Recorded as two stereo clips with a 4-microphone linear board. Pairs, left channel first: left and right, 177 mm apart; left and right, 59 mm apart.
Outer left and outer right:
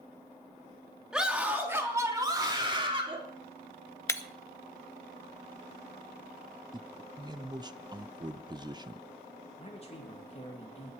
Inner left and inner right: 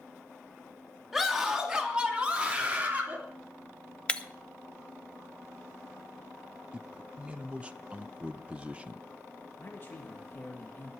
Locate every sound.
1.1 s a scream: 5° right (ahead or behind), 2.5 m; by 3.2 s 30° right (ahead or behind), 3.5 m
4.1 s breaking glass: 15° left (ahead or behind), 0.8 m
6.7 s a man speaking: 25° right (ahead or behind), 0.7 m
9.6 s a man speaking: 35° left (ahead or behind), 2.5 m